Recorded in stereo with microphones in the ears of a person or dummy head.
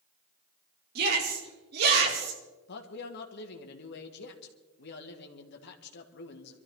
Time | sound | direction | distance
0.9 | a shout | 55° right (ahead or behind) | 4 m
2.7 | a man speaking | 60° left (ahead or behind) | 1.8 m